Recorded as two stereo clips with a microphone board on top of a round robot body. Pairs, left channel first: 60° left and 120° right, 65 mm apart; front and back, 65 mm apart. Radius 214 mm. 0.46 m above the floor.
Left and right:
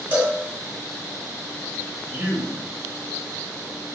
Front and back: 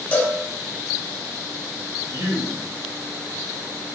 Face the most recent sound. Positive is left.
turn(degrees=180)